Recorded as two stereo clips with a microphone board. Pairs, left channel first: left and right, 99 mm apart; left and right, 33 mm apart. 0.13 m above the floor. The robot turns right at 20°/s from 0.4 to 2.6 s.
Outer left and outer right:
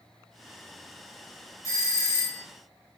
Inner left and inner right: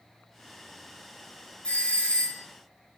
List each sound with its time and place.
1.6 s a doorbell: 30° left (ahead or behind), 2 m; by 2.4 s 25° left (ahead or behind), 2 m